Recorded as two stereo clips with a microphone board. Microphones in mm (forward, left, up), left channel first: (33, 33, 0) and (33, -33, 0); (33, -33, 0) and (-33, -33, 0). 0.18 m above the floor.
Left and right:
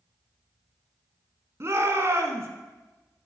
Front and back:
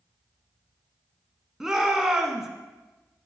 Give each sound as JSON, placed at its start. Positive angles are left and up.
{"t": 1.6, "sound": "a shout", "azimuth_deg": -100, "distance_m": 1.3}